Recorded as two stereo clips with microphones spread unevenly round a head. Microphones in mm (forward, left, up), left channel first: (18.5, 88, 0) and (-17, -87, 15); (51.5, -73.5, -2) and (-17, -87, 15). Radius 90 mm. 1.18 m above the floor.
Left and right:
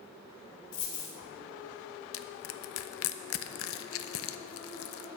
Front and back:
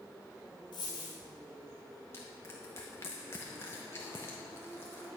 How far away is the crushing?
About 0.5 m.